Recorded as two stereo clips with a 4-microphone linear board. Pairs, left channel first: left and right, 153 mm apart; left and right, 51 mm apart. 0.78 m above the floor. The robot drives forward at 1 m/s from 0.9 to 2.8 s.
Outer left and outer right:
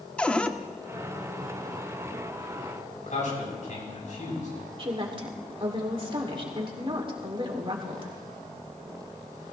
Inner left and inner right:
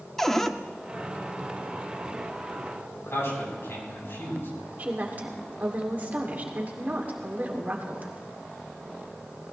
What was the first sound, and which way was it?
A cupboard door, 10° left (ahead or behind).